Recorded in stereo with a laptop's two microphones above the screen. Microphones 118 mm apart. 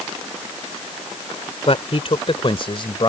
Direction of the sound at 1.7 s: 55° left (ahead or behind).